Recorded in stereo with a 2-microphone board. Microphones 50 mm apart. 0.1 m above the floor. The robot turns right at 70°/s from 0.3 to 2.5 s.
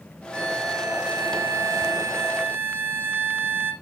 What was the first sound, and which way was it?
A violin, 160° left.